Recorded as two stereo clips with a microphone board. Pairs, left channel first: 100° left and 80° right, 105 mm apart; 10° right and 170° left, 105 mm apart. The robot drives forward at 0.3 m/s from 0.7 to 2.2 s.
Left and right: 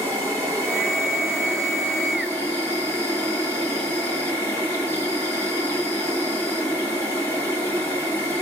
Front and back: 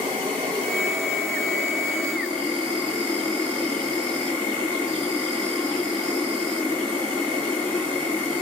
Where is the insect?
145° right, 4 m.